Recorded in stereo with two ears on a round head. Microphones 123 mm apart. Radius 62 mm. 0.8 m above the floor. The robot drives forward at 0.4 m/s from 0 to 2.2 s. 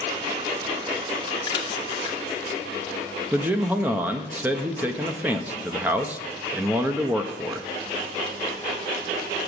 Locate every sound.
1.5 s a splash: 30° left (ahead or behind), 0.7 m; by 2.2 s 35° left (ahead or behind), 0.7 m
3.3 s a man speaking: 10° right (ahead or behind), 0.5 m